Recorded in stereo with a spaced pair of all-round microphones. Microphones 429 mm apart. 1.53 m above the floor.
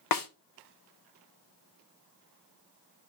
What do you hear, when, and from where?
0.1 s a snare drum: 50° left (ahead or behind), 0.6 m